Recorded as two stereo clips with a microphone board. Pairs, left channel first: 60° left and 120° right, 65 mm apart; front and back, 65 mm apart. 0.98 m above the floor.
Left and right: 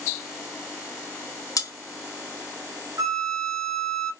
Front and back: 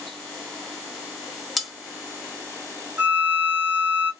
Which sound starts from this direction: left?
Cutlery clinking, at 1.6 s.